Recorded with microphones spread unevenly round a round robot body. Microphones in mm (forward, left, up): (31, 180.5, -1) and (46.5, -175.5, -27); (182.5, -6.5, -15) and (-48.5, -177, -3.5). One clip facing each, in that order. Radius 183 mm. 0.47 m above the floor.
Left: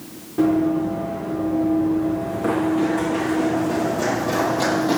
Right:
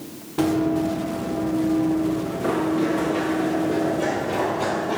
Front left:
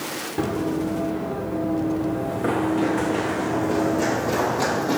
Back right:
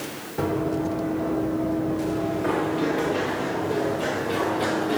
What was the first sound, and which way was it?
Running footsteps, 5° right.